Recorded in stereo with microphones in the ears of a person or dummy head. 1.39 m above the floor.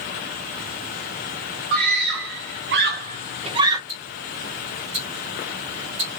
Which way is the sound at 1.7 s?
50° right (ahead or behind).